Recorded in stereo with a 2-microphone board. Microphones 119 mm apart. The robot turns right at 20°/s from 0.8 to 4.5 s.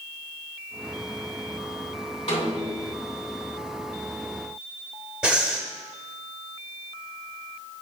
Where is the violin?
No violin in this recording.